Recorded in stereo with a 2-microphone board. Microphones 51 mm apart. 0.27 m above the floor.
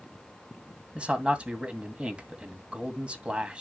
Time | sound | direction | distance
0.9 | a man speaking | 25° right (ahead or behind) | 2.5 m